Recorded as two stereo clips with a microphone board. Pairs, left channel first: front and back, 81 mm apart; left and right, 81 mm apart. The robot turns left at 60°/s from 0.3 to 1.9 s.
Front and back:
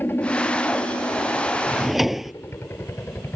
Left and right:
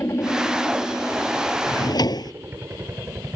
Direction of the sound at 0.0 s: 50° left.